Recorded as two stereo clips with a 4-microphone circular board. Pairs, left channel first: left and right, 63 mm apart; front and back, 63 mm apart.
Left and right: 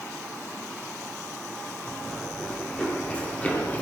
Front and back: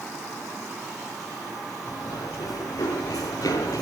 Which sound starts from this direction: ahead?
Running footsteps, at 1.9 s.